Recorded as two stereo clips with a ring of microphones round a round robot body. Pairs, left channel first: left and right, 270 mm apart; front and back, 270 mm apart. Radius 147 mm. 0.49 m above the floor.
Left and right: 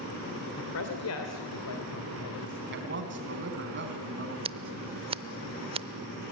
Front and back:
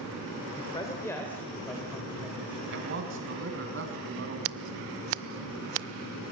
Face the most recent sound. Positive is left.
turn(degrees=-160)